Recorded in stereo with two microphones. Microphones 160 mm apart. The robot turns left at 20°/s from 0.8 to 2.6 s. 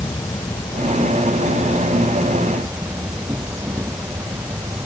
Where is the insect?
20° left; by 4.9 s 15° right.